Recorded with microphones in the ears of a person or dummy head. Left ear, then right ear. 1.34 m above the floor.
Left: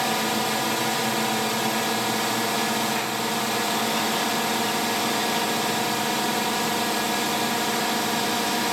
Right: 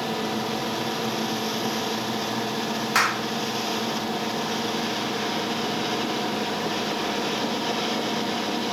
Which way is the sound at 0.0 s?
50° left (ahead or behind).